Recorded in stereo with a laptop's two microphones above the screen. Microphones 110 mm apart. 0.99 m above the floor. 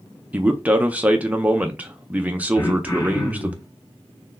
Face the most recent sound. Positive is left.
turn(degrees=35)  # may be behind; listen again after turning